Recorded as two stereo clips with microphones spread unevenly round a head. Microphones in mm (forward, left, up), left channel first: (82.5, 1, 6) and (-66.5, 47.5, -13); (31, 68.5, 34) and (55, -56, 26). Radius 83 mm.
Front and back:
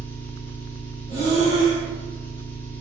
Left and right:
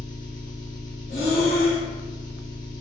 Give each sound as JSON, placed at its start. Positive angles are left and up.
{"t": 0.0, "sound": "an engine running", "azimuth_deg": 55, "distance_m": 0.9}
{"t": 1.1, "sound": "breathing", "azimuth_deg": 90, "distance_m": 1.8}